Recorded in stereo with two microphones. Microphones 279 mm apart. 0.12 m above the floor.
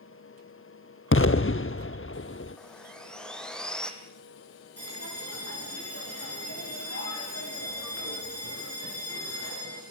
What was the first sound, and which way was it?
An explosion, 45° left (ahead or behind).